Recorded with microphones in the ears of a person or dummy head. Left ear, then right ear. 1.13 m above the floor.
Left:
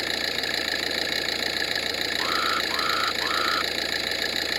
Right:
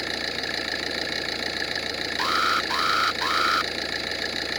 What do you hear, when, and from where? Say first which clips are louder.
0.0 s an engine running: left 2 dB; 10° left (ahead or behind)
2.2 s an alarm: right 4 dB; 20° right (ahead or behind)